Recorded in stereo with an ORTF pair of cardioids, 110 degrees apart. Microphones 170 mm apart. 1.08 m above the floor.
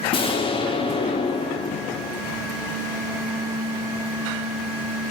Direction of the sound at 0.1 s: 30° left.